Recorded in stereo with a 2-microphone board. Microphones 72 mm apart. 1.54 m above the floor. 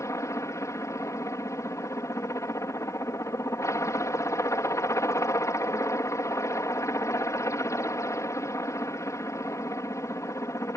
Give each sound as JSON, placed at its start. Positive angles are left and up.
{"t": 0.0, "sound": "a helicopter", "side_deg": 45}